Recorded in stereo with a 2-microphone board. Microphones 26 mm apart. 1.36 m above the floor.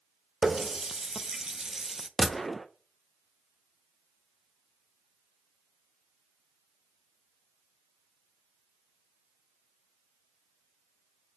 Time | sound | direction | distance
0.4 | a running tap | 25° right (ahead or behind) | 0.5 m
2.2 | a gunshot | 5° left (ahead or behind) | 0.6 m